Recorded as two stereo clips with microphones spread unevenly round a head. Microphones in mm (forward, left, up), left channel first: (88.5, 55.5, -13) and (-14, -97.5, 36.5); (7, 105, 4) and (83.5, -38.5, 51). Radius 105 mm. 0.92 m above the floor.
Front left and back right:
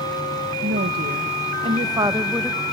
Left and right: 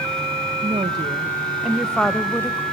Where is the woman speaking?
125° right, 1.1 m; by 2.6 s 110° left, 0.9 m.